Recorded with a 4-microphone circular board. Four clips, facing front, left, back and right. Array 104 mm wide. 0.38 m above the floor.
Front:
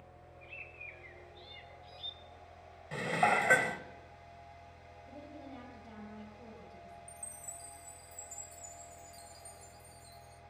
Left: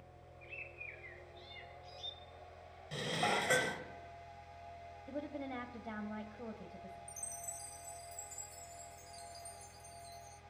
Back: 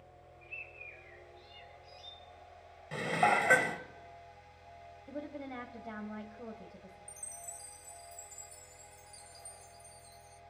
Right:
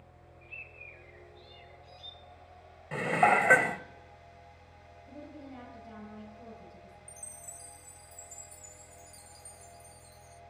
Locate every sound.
0.4 s a bird: 60° left, 3 m
2.9 s dishes clattering: 90° right, 1.0 m
5.1 s a woman speaking: 135° left, 2.5 m
7.1 s a chime: 95° right, 0.6 m